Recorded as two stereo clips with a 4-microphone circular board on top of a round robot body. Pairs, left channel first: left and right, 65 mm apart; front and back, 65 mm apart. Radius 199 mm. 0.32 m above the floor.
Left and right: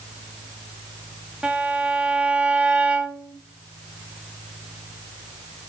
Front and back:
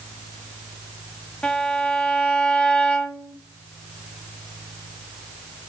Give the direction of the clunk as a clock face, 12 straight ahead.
No clunk in this recording.